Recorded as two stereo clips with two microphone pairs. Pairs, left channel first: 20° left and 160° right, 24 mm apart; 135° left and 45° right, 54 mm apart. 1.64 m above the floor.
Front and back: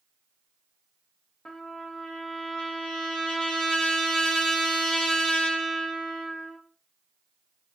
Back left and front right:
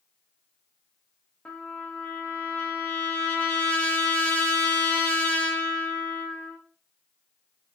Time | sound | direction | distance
1.4 | a trumpet | 70° left | 0.7 m